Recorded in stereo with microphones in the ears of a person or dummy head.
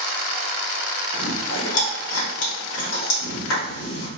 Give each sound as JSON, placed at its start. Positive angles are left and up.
{"t": 1.1, "sound": "chewing", "side_deg": 75, "distance_m": 1.6}